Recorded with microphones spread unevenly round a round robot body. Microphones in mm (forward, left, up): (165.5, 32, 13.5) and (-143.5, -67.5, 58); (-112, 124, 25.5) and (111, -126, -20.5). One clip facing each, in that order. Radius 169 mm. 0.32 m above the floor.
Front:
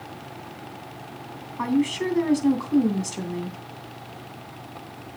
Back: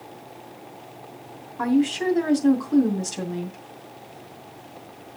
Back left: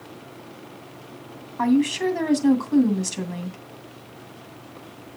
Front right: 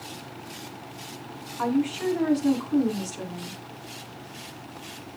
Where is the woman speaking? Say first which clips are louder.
Back 2 dB, back left 5 dB; 105° left, 2.5 m.